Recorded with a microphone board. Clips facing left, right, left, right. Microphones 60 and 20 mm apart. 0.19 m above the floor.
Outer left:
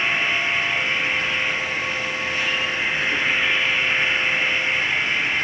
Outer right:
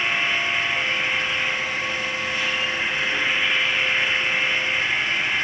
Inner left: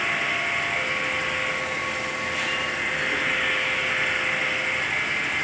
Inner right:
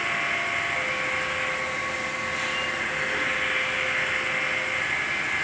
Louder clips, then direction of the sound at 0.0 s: Outer left 1 dB, inner left 2 dB; 35° left (ahead or behind).